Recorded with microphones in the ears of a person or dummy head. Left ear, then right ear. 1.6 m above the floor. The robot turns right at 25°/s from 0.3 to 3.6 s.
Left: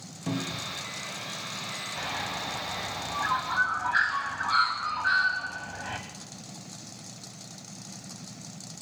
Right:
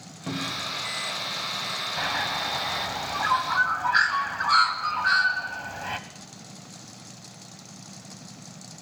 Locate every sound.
0.3 s a cupboard door: 15° right (ahead or behind), 2.0 m; by 0.8 s centre (ahead or behind), 2.0 m
2.0 s a bird: 35° right (ahead or behind), 1.0 m; by 6.0 s 75° right (ahead or behind), 1.0 m